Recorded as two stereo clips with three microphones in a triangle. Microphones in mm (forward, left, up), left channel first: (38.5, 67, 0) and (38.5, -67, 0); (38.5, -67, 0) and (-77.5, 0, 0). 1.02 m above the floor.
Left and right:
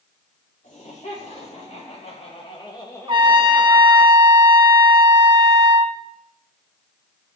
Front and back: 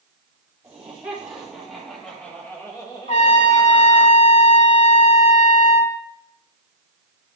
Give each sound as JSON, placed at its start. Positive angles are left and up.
{"t": 0.6, "sound": "laughter", "azimuth_deg": 70, "distance_m": 3.0}
{"t": 3.1, "sound": "a trumpet", "azimuth_deg": -40, "distance_m": 0.7}